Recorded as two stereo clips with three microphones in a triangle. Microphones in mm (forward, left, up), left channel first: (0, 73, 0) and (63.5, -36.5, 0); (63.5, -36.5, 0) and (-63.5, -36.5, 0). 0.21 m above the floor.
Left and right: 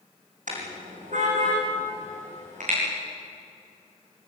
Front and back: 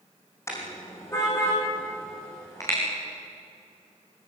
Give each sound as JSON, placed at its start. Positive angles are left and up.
{"t": 0.5, "sound": "a car horn", "azimuth_deg": -70, "distance_m": 6.5}